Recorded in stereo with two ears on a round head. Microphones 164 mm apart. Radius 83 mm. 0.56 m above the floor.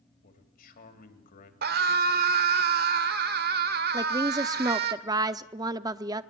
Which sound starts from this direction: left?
A man speaking, at 0.2 s.